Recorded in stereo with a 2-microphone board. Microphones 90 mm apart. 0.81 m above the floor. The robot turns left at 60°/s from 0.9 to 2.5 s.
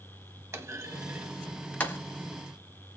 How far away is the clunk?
About 0.8 m.